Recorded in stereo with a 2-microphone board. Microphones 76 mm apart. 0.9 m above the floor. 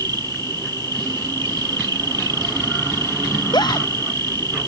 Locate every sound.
0.0 s an insect: 70° right (ahead or behind)
3.3 s a scream: 75° left (ahead or behind)